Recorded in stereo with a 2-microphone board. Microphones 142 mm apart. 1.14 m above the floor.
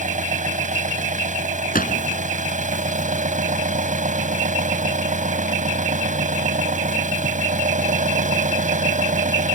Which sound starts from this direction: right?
An engine running, at 0.0 s.